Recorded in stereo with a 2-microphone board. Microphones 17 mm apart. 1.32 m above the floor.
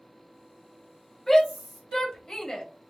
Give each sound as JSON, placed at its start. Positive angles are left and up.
{"t": 1.3, "sound": "a shout", "side_deg": 20, "distance_m": 2.0}